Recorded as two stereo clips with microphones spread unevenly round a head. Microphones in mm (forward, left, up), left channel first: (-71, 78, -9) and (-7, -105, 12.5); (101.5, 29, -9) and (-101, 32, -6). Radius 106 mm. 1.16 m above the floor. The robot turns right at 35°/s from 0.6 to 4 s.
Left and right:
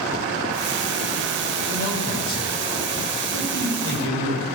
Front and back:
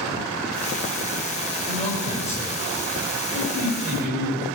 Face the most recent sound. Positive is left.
turn(degrees=135)